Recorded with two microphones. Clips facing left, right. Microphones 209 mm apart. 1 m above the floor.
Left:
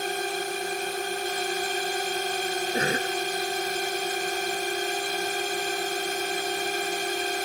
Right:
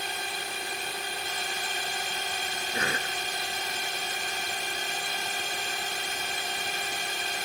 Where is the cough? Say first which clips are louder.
Left 5 dB; 35° left (ahead or behind).